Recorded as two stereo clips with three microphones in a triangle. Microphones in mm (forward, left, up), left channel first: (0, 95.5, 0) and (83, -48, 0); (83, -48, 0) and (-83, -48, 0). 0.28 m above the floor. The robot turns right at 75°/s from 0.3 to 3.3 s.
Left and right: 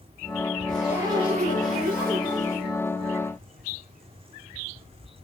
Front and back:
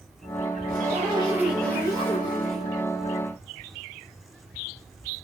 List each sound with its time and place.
0.7 s a zipper: 155° right, 5 m; by 2.7 s 5° right, 5 m